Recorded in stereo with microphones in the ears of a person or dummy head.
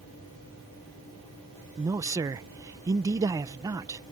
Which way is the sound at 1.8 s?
20° right (ahead or behind).